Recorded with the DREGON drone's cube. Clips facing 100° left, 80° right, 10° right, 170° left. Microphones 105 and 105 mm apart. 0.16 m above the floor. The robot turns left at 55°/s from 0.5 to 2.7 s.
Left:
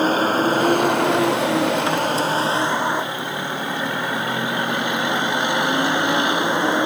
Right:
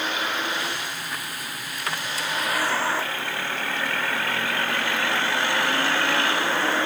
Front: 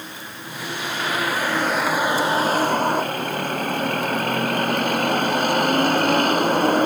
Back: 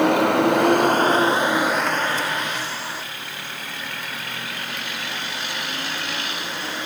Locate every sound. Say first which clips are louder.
0.0 s a vehicle: left 10 dB, back 21 dB; 150° left; by 6.9 s 30° left